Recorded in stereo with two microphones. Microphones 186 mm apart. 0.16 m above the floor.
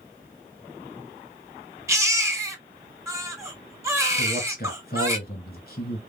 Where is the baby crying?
15° right (ahead or behind), 1.0 m.